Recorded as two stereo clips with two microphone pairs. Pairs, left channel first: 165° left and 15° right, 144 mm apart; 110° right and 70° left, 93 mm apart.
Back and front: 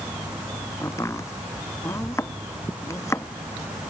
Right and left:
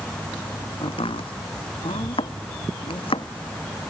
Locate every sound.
0.8 s chopping: 125° right